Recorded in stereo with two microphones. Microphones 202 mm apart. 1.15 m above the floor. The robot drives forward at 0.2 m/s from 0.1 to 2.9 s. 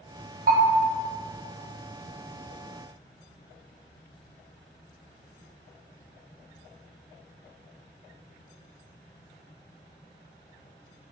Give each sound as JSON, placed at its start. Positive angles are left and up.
{"t": 0.5, "sound": "a bell", "side_deg": -45, "distance_m": 0.9}